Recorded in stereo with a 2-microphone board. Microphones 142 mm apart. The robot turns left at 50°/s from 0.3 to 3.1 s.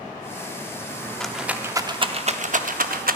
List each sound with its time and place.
1.2 s a rattle: 5° left (ahead or behind), 0.7 m; by 3.1 s 75° right (ahead or behind), 0.7 m